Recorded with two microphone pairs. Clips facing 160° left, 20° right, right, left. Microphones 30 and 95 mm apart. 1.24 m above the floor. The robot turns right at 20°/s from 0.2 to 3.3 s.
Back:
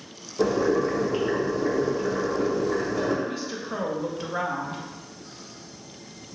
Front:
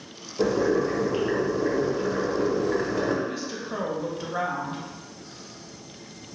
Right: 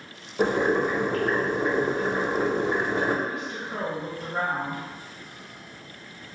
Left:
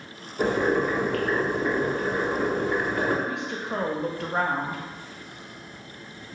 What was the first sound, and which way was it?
Boiling, 130° right.